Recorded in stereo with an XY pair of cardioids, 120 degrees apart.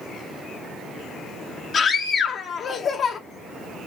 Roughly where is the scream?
Ahead left.